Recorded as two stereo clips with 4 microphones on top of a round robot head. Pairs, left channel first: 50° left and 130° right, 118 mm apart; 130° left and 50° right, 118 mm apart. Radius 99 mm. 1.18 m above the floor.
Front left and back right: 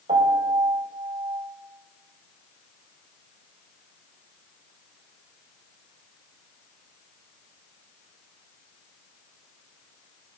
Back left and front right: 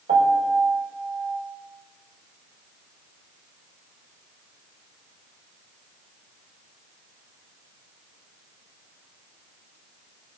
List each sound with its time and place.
0.1 s a piano: 80° right, 2 m